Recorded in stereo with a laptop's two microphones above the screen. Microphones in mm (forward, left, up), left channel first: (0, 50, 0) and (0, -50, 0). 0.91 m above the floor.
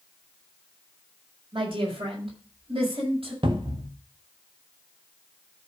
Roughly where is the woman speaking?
Right.